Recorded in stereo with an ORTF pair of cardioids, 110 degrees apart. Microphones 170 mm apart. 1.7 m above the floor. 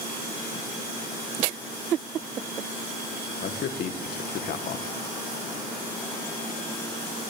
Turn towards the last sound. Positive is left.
turn(degrees=65)